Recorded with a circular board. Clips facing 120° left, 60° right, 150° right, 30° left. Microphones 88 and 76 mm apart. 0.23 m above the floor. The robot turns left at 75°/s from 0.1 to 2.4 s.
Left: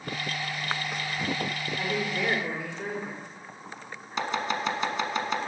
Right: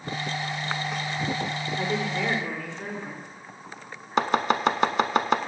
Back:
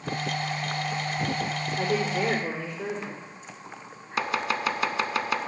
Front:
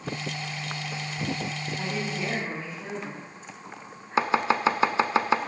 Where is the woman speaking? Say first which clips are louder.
Right 2 dB, back 7 dB; 115° right, 4.5 m; by 3.2 s 165° right, 4.5 m.